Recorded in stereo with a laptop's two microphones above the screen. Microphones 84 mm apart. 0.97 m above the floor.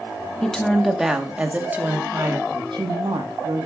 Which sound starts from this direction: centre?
A woman speaking, at 0.4 s.